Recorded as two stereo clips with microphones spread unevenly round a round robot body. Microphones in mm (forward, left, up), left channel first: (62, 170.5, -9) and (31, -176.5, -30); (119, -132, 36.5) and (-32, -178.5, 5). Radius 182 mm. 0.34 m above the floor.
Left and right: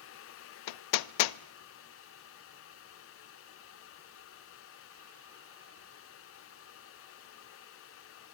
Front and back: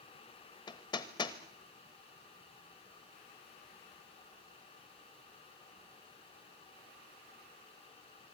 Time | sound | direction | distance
0.7 | hammering | 90° left | 0.6 m